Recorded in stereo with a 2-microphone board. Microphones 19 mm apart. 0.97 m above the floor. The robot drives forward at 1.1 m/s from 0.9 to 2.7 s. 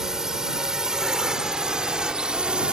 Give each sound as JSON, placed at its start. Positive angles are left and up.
{"t": 0.0, "sound": "a drone", "side_deg": -25}